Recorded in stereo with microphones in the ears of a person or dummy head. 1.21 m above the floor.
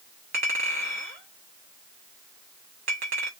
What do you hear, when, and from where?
0.3 s a clink: 35° right (ahead or behind), 1.1 m